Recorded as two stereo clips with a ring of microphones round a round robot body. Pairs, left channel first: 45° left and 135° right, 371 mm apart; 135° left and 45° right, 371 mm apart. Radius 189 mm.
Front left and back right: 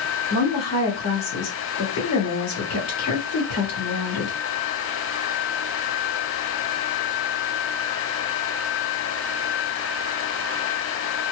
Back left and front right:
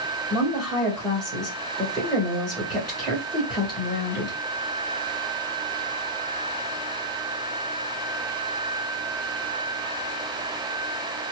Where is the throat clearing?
No throat clearing in this recording.